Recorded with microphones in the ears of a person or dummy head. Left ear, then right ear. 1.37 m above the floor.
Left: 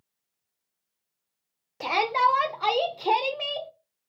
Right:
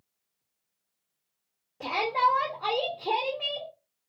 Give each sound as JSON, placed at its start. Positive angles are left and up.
{"t": 1.8, "sound": "a shout", "side_deg": 65, "distance_m": 0.9}